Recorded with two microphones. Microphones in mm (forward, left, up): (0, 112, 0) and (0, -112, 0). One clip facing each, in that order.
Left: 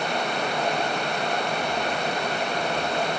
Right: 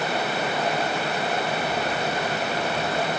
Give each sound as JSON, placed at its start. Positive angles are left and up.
{"t": 1.6, "sound": "footsteps", "side_deg": 65, "distance_m": 3.5}